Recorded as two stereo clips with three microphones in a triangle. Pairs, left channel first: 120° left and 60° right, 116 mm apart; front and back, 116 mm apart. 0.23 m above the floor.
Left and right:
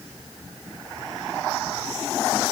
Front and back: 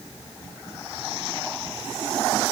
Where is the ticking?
I don't hear ticking.